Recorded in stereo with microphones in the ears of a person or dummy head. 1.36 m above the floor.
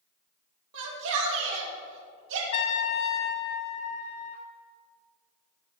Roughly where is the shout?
Right.